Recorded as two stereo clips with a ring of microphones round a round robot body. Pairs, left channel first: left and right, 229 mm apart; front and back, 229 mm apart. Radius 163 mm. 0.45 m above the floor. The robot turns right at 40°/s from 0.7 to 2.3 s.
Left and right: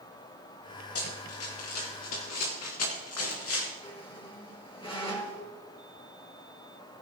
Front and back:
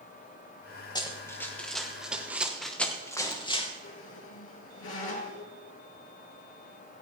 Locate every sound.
0.9 s running footsteps: 70° left, 4 m; by 3.7 s 65° left, 3.5 m
3.8 s a squeak: 20° left, 3 m